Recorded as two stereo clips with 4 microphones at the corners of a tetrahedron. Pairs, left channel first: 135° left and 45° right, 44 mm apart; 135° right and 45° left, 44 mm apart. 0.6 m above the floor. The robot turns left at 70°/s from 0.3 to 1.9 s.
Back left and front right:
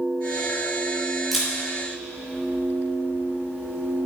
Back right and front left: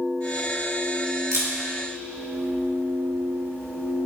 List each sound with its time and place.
1.3 s a camera shutter: 45° left, 4 m; by 4.1 s 5° left, 4 m